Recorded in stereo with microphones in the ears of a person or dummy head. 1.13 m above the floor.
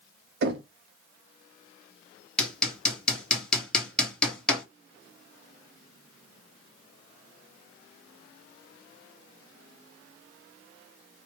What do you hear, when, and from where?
0.4 s knocking: 65° right (ahead or behind), 0.7 m
2.4 s hammering: 5° left (ahead or behind), 1.1 m